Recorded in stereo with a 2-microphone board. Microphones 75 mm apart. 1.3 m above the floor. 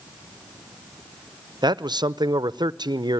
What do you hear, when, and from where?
1.6 s a man speaking: 75° right (ahead or behind), 0.7 m